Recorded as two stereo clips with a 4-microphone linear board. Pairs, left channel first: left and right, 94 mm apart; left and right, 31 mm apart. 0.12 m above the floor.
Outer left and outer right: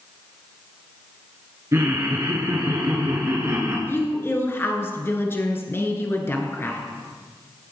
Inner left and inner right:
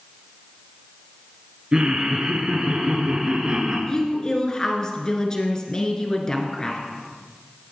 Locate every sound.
1.7 s laughter: 35° right (ahead or behind), 1.6 m
3.9 s a woman speaking: 25° left (ahead or behind), 1.6 m